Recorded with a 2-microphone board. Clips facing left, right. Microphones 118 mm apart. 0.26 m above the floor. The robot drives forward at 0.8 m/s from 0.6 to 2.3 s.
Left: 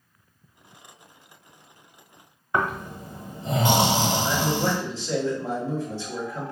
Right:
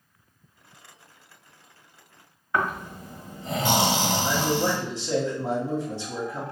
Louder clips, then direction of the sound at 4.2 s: Even; 20° right (ahead or behind).